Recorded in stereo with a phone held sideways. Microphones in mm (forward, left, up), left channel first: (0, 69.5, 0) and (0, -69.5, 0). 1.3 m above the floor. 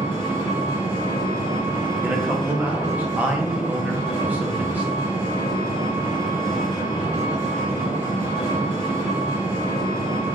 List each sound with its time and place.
0.0 s an engine running: 55° right (ahead or behind), 1.8 m
2.0 s a man speaking: 10° right (ahead or behind), 0.7 m